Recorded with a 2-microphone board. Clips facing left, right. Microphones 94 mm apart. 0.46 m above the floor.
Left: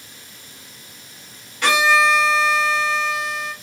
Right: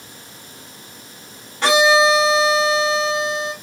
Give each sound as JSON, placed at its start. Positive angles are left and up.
{"t": 1.6, "sound": "a violin", "side_deg": -35, "distance_m": 1.7}